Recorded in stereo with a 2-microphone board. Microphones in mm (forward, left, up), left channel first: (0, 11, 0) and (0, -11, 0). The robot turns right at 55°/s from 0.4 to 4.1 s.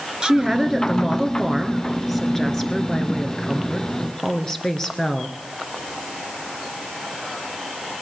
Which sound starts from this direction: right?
A woman speaking, at 0.2 s.